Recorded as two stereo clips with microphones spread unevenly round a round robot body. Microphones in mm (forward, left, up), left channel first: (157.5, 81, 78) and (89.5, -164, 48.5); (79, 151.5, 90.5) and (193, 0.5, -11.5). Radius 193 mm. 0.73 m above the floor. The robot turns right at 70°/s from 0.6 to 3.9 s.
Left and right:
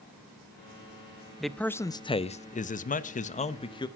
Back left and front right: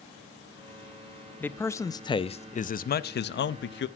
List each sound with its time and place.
1.4 s a man speaking: 35° right, 0.6 m; by 3.9 s 140° left, 0.6 m